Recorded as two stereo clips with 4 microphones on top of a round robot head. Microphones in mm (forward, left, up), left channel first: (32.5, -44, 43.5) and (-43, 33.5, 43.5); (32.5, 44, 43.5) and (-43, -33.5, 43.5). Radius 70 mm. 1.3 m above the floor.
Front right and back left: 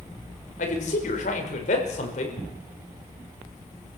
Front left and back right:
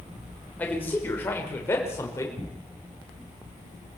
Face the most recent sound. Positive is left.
turn(degrees=-20)